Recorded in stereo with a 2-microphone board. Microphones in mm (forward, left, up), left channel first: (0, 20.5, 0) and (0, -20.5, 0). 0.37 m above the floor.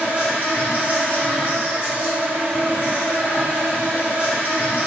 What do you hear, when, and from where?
0.0 s an insect: 50° right (ahead or behind), 1.3 m